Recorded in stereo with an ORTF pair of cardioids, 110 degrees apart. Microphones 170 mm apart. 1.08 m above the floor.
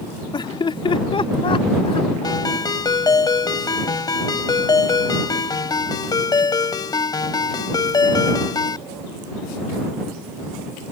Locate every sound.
0.3 s laughter: 25° left; by 2.4 s 35° left
2.2 s a ringtone: 25° left